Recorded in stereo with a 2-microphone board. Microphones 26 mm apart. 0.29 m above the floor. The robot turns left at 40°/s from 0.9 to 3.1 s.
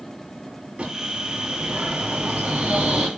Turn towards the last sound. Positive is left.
turn(degrees=-135)